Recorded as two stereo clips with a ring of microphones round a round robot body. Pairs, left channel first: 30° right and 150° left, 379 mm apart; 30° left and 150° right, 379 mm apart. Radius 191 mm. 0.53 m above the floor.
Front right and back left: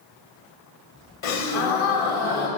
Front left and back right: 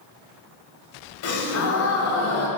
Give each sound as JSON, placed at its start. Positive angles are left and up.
{"t": 1.2, "sound": "a gasp", "azimuth_deg": -25, "distance_m": 1.6}